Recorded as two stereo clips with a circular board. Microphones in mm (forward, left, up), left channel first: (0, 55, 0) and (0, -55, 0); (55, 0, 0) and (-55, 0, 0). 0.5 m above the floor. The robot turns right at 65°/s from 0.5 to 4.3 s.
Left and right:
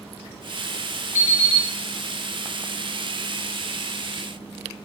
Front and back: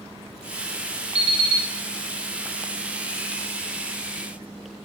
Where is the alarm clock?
160° right, 1.8 m; by 1.7 s 130° right, 1.8 m.